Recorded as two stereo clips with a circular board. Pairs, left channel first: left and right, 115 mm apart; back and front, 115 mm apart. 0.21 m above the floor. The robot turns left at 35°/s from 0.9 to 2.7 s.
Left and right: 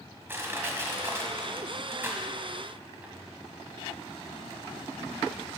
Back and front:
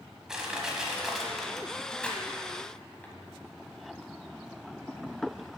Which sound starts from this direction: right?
Crushing, at 0.3 s.